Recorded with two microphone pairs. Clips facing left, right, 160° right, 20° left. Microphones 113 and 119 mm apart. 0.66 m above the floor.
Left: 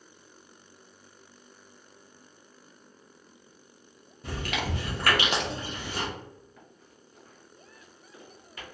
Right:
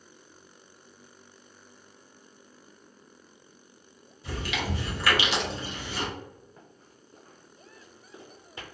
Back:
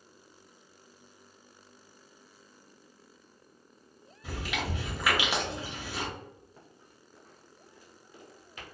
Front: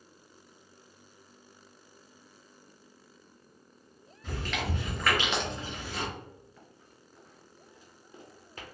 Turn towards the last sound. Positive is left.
turn(degrees=-25)